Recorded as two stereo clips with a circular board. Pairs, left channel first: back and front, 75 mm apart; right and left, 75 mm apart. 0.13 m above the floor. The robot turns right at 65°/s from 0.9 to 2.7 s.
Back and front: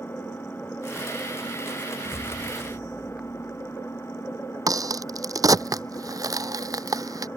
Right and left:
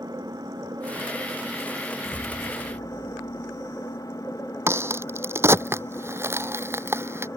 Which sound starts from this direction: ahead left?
A crack, at 4.7 s.